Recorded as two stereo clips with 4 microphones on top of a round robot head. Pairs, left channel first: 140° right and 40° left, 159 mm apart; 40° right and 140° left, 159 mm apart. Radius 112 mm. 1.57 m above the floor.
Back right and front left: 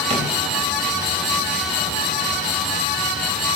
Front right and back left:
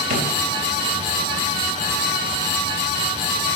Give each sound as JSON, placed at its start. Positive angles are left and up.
{"t": 0.1, "sound": "a drawer", "azimuth_deg": 95, "distance_m": 3.5}